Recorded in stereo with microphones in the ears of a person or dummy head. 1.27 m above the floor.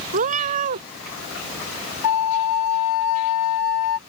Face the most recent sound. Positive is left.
turn(degrees=60)  # may be behind; listen again after turning